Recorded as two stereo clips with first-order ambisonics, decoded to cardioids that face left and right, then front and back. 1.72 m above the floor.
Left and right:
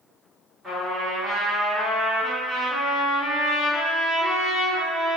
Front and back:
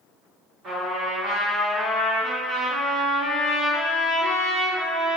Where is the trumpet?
175° right, 1.3 m.